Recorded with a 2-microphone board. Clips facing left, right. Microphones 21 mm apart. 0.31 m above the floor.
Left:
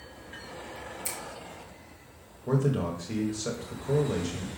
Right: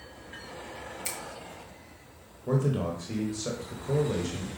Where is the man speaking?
Centre (ahead or behind), 1.0 m.